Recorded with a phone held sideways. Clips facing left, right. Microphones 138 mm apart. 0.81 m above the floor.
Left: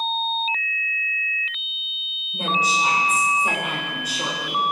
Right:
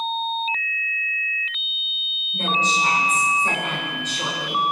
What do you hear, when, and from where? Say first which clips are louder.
2.3 s a woman speaking: even; 10° left (ahead or behind), 3.5 m